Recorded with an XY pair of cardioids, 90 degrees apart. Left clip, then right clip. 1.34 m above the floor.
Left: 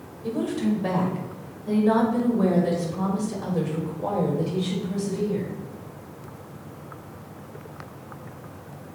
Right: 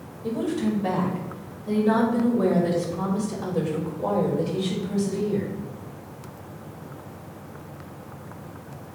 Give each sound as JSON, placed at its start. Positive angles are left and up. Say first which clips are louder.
{"t": 0.2, "sound": "a woman speaking", "louder": "even", "azimuth_deg": 20, "distance_m": 5.0}